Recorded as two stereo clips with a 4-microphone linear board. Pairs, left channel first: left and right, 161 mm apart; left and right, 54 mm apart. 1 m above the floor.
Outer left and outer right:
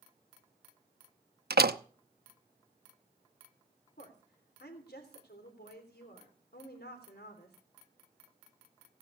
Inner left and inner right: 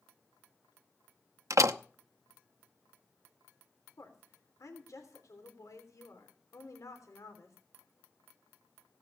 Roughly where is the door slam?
Right.